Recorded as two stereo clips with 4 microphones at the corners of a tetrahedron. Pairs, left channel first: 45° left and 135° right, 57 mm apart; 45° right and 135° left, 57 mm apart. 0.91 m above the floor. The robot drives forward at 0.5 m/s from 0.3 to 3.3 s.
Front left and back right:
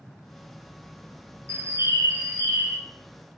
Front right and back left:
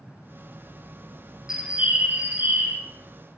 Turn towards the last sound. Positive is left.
turn(degrees=-170)